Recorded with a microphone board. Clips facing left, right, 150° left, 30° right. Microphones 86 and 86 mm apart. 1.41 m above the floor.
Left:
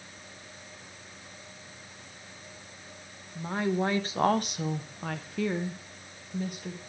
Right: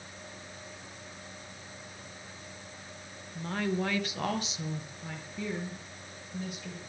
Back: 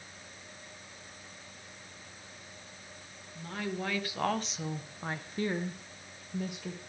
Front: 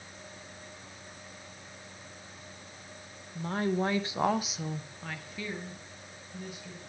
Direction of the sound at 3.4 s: 15° left.